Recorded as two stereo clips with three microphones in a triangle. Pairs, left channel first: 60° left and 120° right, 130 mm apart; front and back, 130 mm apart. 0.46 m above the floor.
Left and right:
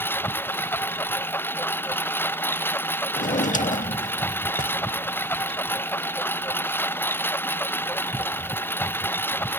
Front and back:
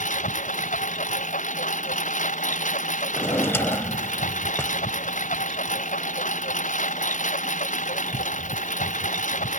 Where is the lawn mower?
15° right.